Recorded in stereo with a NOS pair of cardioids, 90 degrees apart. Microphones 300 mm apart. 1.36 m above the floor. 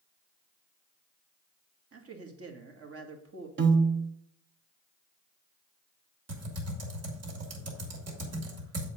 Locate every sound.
1.9 s a man speaking: 50° right, 2 m
3.6 s a piano: 40° right, 1.3 m
6.3 s typing on a keyboard: 55° right, 3 m